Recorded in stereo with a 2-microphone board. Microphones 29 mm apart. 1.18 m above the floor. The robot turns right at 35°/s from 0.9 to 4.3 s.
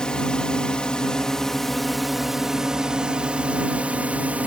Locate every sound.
0.0 s a drone: 145° left; by 4.5 s 95° right